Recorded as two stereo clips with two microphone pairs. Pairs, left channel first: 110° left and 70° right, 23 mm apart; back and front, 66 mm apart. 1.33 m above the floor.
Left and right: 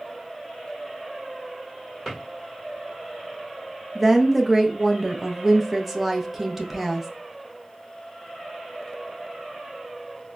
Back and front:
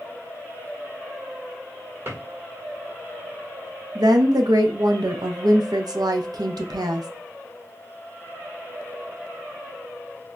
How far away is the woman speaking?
About 0.6 m.